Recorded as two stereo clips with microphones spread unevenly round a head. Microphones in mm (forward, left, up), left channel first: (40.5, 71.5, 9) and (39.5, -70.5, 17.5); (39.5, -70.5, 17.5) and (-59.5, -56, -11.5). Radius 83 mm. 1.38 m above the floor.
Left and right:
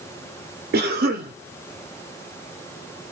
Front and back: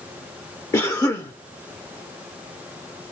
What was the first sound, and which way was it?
A cough, 70° right.